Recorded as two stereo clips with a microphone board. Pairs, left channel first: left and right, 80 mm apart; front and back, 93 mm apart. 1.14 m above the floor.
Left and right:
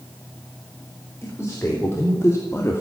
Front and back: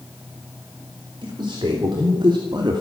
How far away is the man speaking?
About 4.5 m.